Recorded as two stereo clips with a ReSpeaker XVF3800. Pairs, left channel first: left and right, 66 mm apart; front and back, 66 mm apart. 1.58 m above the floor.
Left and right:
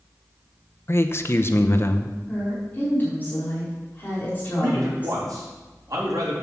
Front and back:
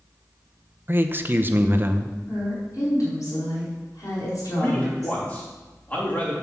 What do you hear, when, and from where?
0.9 s a man speaking: 130° left, 0.8 m
2.3 s a woman speaking: 30° left, 4.5 m
4.6 s a man speaking: 65° right, 3.5 m